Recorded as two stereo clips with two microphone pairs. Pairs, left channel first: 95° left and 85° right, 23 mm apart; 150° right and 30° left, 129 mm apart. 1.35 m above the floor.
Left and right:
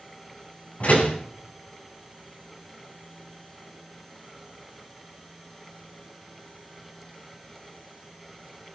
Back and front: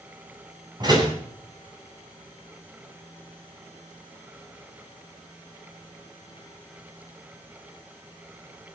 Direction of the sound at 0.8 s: 85° left.